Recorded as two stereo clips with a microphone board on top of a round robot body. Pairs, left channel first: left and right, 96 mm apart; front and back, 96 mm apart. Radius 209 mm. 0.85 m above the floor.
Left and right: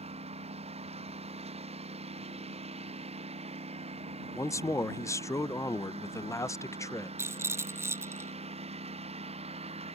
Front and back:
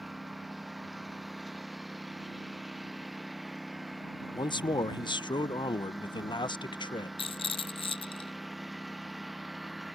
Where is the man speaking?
30° left.